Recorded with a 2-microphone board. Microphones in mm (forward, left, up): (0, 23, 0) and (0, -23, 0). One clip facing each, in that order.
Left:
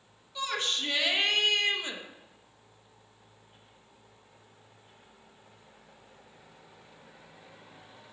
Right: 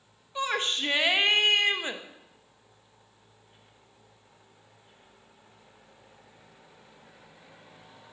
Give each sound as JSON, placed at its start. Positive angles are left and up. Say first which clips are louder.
{"t": 0.3, "sound": "a shout", "louder": "right 3 dB", "side_deg": -30, "distance_m": 0.8}